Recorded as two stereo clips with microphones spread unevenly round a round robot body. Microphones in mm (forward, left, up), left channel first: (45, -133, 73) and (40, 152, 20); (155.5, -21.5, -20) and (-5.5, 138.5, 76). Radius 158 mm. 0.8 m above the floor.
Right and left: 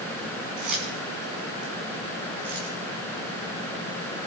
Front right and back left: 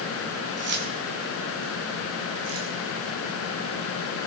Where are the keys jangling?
100° left, 6 m; by 2.8 s 115° left, 5.5 m.